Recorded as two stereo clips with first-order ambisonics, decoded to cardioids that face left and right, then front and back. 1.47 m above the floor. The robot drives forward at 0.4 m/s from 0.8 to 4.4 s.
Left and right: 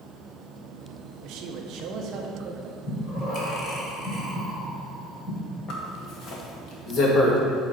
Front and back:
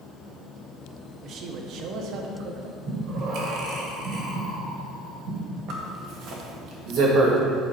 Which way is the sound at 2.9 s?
145° left.